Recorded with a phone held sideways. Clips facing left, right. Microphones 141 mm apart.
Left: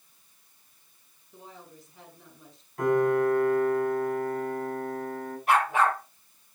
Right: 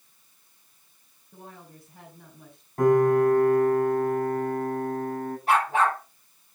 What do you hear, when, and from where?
1.3 s a woman speaking: 55° right (ahead or behind), 4 m
2.8 s a piano: 40° right (ahead or behind), 8.5 m
5.5 s a dog barking: 30° right (ahead or behind), 10 m